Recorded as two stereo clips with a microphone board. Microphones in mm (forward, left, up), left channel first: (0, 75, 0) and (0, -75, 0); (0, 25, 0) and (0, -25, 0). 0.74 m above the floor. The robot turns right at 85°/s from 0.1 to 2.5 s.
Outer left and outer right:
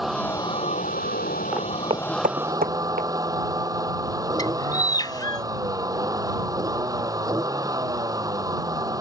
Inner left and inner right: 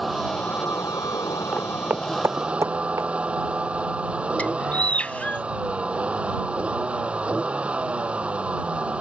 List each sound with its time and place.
0.0 s a vehicle: straight ahead; by 9.0 s 155° right
1.5 s footsteps: 5° right (ahead or behind); by 3.1 s 75° right (ahead or behind)
4.4 s a bird: 25° left (ahead or behind)